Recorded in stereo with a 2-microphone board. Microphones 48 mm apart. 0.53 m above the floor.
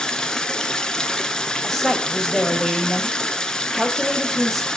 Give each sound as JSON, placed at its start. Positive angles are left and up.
{"t": 0.0, "sound": "running water", "side_deg": 15, "distance_m": 1.2}
{"t": 1.6, "sound": "a woman speaking", "side_deg": 5, "distance_m": 2.5}